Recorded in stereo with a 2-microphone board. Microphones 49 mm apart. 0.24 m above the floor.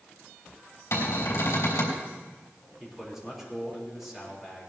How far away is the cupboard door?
About 3.5 m.